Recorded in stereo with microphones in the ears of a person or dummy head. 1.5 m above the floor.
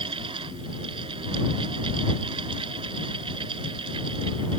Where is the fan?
30° right (ahead or behind).